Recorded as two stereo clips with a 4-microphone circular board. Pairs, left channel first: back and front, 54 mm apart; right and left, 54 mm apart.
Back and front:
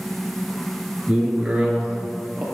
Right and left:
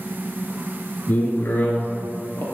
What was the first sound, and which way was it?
A man speaking, 55° right.